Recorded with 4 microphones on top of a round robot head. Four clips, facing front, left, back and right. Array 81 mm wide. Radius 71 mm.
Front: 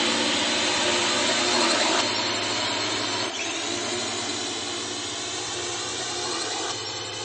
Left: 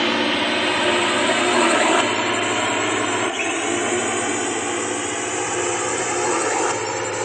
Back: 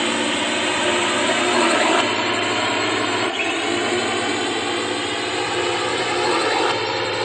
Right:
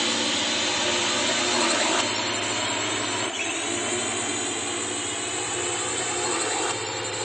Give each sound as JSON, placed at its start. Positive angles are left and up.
{"t": 0.0, "sound": "a drone", "azimuth_deg": 115}